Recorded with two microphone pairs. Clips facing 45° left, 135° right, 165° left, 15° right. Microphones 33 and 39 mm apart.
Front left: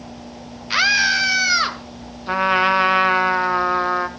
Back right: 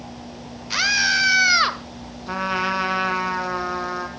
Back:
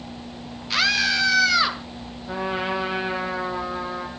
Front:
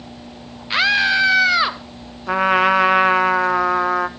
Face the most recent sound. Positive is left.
turn(degrees=-15)